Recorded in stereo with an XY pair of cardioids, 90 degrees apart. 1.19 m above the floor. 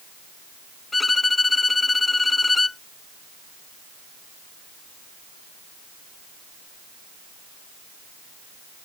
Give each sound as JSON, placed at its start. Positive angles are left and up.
{"t": 0.9, "sound": "a violin", "azimuth_deg": 25}